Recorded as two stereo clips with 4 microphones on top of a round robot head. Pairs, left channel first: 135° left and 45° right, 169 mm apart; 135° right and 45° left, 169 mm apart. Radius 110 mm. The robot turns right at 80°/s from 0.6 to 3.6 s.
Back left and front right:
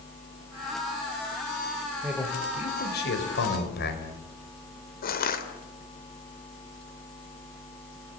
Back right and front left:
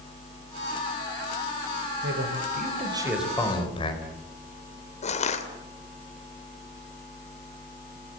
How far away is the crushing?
About 2.5 m.